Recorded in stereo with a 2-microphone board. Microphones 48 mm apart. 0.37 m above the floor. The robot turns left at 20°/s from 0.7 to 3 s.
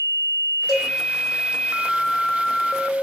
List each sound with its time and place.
0.7 s a cowbell: 10° left (ahead or behind), 5.5 m; by 0.9 s 5° left (ahead or behind), 5.5 m